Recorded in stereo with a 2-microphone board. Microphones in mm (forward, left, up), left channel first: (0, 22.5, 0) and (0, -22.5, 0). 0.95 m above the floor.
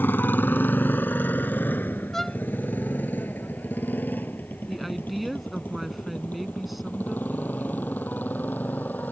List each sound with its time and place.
0.0 s a motorcycle: 45° left (ahead or behind); by 9.1 s 40° left (ahead or behind)
2.1 s a violin: 5° left (ahead or behind)
4.7 s a woman speaking: centre (ahead or behind)